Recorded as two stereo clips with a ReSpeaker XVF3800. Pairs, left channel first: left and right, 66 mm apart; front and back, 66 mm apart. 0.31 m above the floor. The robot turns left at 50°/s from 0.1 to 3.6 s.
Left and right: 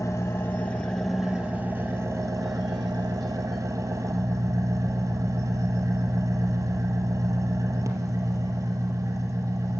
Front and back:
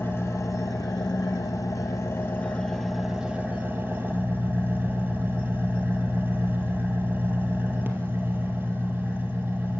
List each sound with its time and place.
0.0 s an engine running: 50° left, 1.8 m; by 9.8 s 125° right, 1.8 m